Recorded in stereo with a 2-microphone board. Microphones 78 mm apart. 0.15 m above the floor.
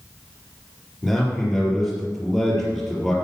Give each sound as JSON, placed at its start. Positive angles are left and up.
{"t": 1.0, "sound": "a man speaking", "side_deg": 0, "distance_m": 4.5}